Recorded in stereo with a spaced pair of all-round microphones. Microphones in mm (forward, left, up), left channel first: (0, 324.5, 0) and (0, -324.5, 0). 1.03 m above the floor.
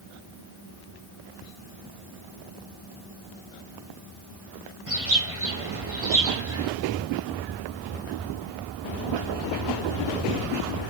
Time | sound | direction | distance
4.9 | a bird | 20° right (ahead or behind) | 6 m